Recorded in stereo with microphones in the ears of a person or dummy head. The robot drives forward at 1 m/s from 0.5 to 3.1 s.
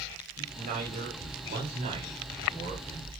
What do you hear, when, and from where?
0.4 s a man speaking: 50° right (ahead or behind), 5 m; by 3.1 s 35° right (ahead or behind), 6.5 m